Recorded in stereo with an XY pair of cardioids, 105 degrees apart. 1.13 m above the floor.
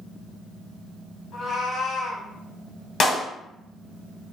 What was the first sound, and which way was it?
A cat meowing, 60° left.